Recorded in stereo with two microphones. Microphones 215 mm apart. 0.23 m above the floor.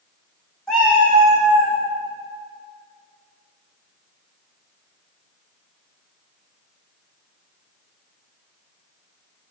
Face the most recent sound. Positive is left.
turn(degrees=-45)  # may be behind; listen again after turning